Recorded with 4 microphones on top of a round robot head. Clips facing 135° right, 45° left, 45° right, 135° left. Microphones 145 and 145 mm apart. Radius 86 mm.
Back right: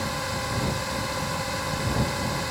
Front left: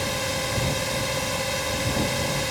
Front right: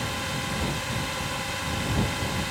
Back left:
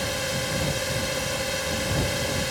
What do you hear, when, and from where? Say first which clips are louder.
0.0 s a drone: front left 2 dB, back left 3 dB; 105° left